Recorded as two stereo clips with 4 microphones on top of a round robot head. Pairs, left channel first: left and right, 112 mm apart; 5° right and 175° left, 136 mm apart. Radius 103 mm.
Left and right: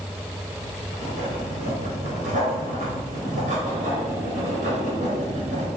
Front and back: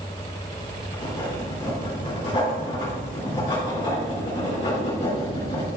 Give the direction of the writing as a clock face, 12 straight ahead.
2 o'clock.